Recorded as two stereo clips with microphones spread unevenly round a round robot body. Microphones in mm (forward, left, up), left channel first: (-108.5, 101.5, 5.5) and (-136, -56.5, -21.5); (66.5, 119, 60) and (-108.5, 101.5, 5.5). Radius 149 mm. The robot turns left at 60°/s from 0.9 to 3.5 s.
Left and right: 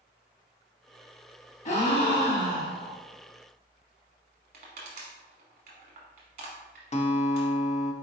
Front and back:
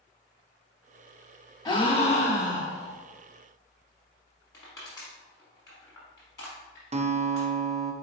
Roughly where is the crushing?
Ahead right.